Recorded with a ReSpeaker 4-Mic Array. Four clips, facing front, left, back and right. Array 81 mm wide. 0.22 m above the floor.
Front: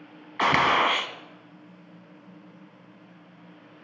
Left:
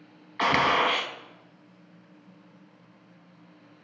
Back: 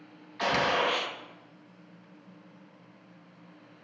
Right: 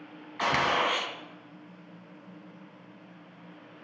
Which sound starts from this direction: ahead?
A gunshot, at 0.4 s.